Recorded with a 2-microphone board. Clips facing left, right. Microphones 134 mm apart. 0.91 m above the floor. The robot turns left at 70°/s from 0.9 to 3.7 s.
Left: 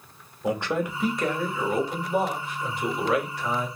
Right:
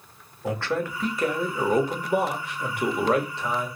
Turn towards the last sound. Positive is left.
turn(degrees=180)